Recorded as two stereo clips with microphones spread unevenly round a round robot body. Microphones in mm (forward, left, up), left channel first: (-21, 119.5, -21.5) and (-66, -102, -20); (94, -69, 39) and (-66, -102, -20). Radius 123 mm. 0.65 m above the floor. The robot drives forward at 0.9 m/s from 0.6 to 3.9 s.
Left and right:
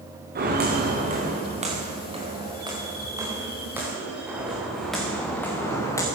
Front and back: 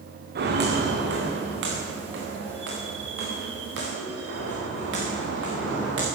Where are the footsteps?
150° right, 4 m; by 6.0 s 155° left, 4 m.